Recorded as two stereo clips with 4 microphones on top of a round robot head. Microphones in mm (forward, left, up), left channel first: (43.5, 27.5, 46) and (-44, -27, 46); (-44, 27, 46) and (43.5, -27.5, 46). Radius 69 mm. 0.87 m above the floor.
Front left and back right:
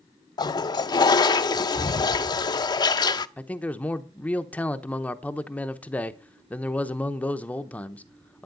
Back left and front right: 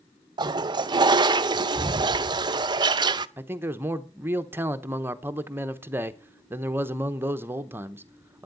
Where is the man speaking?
20° right, 0.9 m.